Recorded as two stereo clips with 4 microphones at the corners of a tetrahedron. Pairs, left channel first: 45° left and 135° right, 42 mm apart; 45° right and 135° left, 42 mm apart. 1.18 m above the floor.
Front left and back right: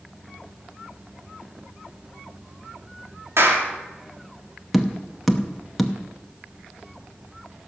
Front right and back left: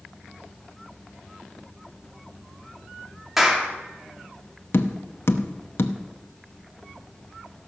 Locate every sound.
3.4 s a clap: 140° right, 2 m
4.7 s tapping: 45° right, 0.8 m